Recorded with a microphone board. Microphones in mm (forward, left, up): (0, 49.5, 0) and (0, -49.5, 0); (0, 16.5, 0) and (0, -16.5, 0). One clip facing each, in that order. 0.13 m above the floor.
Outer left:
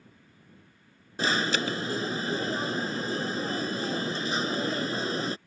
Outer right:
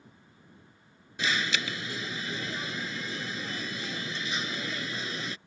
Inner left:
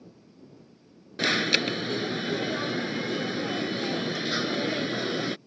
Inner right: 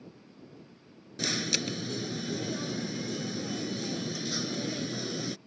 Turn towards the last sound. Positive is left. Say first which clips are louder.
# outer left 4 dB, inner left 7 dB
turn(degrees=40)  # may be behind; listen again after turning